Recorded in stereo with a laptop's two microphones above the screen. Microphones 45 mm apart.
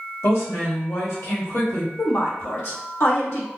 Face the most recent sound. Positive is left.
turn(degrees=60)  # may be behind; listen again after turning